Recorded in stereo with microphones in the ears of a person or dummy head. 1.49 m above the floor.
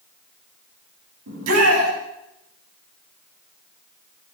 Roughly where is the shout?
Right.